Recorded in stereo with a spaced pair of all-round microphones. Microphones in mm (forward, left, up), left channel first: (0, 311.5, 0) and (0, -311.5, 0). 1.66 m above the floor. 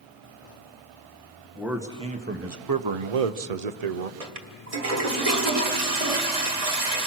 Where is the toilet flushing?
65° right (ahead or behind), 1.5 m.